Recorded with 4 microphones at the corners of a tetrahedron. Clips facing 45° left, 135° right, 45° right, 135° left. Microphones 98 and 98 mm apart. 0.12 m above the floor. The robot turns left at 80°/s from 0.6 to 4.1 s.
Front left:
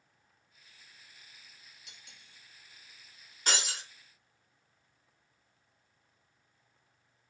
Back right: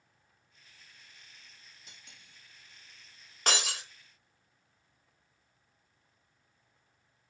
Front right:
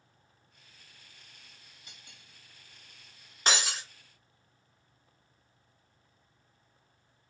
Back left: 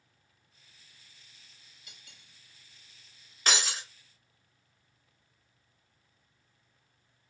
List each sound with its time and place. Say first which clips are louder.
1.9 s cutlery clinking: back right 1 dB, front right 1 dB; 90° right, 1.6 m; by 2.4 s 135° right, 1.6 m
3.5 s breaking glass: back right 3 dB, front right 1 dB; 110° right, 1.0 m; by 3.8 s 140° right, 1.0 m